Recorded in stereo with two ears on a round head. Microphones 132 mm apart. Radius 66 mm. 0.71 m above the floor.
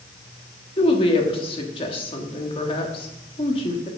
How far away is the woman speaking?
About 1.5 m.